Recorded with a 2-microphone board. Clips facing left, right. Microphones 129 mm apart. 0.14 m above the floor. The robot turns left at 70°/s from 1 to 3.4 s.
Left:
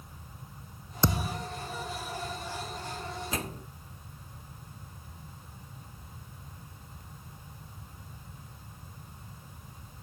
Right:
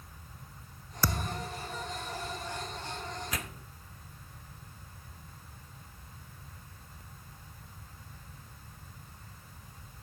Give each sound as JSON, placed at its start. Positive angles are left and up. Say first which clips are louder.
{"t": 1.0, "sound": "a thud", "louder": "left 4 dB", "azimuth_deg": 25}
{"t": 3.3, "sound": "a microwave", "louder": "left 5 dB", "side_deg": 25}